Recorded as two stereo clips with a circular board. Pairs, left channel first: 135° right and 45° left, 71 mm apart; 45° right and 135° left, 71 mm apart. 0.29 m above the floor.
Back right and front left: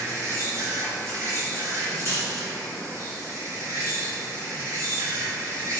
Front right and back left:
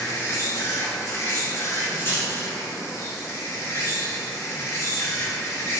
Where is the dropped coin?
5° left, 1.7 m.